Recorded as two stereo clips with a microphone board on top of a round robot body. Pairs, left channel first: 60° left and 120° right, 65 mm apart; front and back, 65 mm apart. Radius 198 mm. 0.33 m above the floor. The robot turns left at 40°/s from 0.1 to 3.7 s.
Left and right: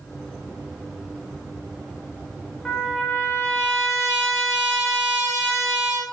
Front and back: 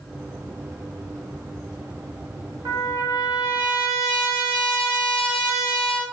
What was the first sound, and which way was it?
A trumpet, 150° left.